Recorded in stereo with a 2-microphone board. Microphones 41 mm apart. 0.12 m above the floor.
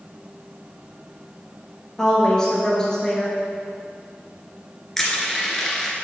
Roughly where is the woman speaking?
Centre.